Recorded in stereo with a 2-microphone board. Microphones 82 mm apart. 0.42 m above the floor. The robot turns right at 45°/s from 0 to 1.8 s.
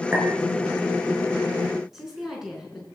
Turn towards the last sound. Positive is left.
turn(degrees=-5)  # may be behind; listen again after turning